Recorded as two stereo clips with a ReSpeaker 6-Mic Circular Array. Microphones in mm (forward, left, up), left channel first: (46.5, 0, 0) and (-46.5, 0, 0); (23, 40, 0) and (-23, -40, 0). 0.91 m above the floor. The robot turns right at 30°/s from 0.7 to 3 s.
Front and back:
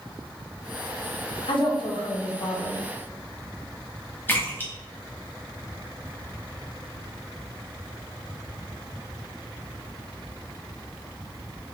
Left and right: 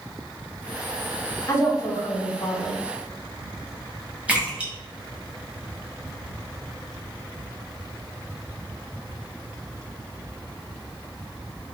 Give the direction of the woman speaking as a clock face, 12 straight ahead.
12 o'clock.